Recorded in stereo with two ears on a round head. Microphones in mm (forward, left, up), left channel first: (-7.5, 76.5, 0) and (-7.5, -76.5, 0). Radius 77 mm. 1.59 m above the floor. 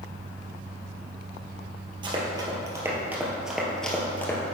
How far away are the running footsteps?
About 1.9 m.